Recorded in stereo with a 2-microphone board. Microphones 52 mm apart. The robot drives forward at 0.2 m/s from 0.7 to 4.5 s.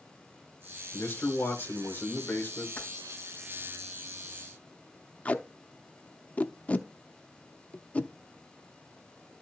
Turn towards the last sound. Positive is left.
turn(degrees=30)  # may be behind; listen again after turning